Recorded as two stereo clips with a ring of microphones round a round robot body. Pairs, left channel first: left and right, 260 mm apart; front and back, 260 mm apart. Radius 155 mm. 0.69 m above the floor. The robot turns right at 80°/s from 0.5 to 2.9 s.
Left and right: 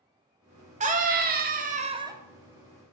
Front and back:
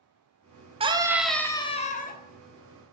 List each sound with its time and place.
0.8 s a scream: 130° right, 0.5 m; by 2.2 s 20° right, 0.5 m